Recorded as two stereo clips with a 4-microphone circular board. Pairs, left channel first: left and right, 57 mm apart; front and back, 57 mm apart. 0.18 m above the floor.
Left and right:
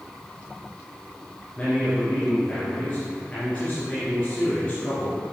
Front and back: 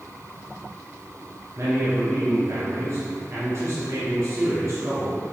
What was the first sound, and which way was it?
A man speaking, 150° left.